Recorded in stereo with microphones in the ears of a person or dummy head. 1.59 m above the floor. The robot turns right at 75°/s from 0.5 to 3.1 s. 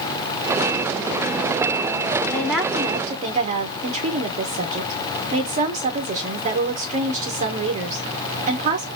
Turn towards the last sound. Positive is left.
turn(degrees=-140)